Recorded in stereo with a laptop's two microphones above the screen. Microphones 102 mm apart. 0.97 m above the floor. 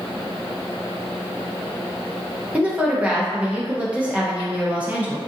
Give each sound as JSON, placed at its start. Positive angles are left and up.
{"t": 2.5, "sound": "a woman speaking", "side_deg": -15, "distance_m": 0.5}